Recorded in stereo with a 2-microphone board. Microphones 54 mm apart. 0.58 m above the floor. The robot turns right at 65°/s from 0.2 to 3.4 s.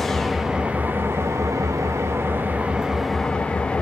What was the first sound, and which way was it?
An engine running, 175° left.